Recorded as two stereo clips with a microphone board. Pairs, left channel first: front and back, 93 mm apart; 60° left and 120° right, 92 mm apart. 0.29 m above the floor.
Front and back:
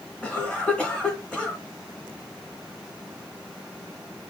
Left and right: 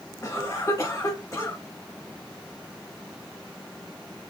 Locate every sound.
0.2 s a cough: 70° left, 1.0 m